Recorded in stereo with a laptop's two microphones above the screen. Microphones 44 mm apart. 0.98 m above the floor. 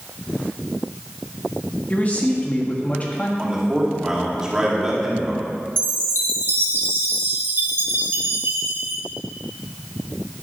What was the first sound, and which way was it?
A man speaking, 35° left (ahead or behind).